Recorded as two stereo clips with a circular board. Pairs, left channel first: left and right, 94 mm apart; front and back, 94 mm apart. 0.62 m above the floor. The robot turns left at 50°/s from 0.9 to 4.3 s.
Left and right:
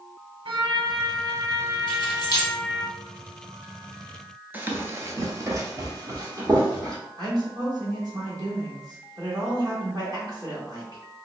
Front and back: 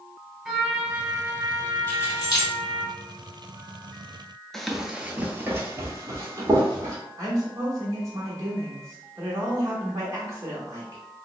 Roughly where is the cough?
I don't hear a cough.